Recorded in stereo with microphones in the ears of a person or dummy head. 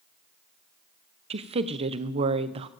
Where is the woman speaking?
35° right (ahead or behind), 0.7 m.